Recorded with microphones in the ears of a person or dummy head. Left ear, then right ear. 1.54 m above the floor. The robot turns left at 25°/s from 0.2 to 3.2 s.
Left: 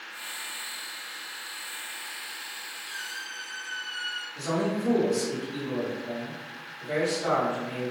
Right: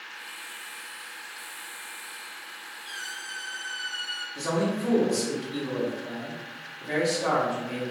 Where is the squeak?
50° right (ahead or behind), 1.3 m; by 4.2 s 55° right (ahead or behind), 1.3 m.